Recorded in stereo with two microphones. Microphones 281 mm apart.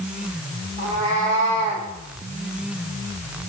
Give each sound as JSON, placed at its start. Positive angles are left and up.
{"t": 0.8, "sound": "a cat meowing", "side_deg": -25, "distance_m": 5.5}